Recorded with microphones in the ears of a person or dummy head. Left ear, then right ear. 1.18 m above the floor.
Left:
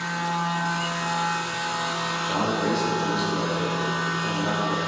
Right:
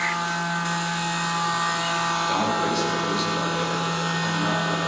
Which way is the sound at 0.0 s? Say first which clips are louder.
Right 2 dB; 50° right (ahead or behind).